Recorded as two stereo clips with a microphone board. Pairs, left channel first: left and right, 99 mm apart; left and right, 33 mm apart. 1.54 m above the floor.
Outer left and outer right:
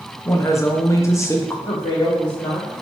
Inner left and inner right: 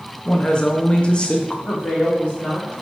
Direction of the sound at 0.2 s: 30° left (ahead or behind).